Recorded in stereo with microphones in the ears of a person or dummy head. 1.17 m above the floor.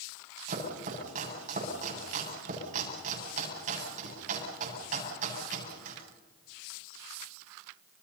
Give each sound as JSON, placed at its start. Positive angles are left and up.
{"t": 0.5, "sound": "chopping", "side_deg": -40, "distance_m": 9.0}